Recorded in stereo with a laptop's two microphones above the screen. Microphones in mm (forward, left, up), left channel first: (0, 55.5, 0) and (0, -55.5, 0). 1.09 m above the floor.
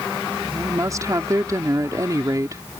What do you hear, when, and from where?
0.5 s a woman speaking: 35° right (ahead or behind)